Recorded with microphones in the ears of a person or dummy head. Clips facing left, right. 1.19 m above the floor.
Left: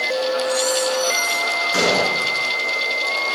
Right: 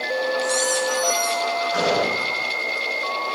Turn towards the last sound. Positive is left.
turn(degrees=40)  # may be behind; listen again after turning